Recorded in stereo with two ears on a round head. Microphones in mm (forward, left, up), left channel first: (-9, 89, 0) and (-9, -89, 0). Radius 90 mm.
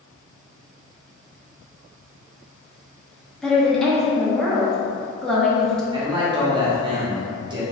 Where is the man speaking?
25° right (ahead or behind), 1.0 m.